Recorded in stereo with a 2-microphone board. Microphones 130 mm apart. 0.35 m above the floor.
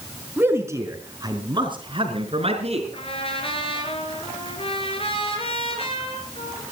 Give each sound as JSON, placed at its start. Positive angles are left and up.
{"t": 0.4, "sound": "a man speaking", "side_deg": -15, "distance_m": 4.0}
{"t": 2.9, "sound": "a trumpet", "side_deg": 45, "distance_m": 5.0}